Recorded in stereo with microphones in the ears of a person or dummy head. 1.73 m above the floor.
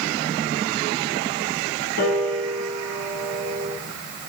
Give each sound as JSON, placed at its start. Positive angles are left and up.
{"t": 2.0, "sound": "a piano", "side_deg": 55, "distance_m": 8.0}